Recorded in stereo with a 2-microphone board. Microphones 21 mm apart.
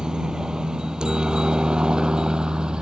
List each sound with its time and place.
0.0 s a helicopter: 40° right (ahead or behind); by 2.8 s 45° right (ahead or behind)